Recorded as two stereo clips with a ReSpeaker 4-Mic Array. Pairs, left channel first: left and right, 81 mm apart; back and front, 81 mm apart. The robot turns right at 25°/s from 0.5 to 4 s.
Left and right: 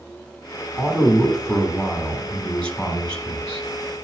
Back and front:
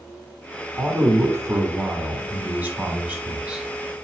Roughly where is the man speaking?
Ahead.